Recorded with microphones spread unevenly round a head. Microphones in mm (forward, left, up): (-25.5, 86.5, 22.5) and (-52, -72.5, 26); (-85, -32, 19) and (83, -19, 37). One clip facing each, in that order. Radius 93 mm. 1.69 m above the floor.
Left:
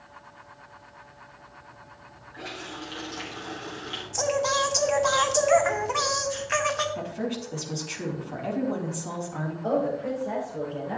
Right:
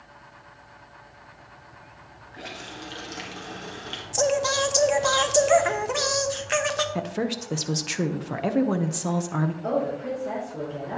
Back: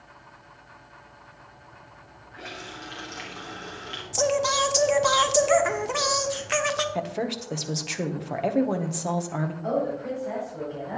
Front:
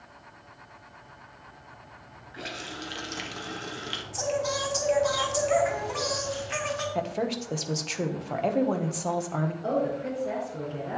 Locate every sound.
2.3 s a running tap: 30° right, 1.4 m
4.1 s singing: 150° right, 1.0 m
7.0 s a woman speaking: 90° right, 1.0 m
9.6 s a woman speaking: 45° right, 5.5 m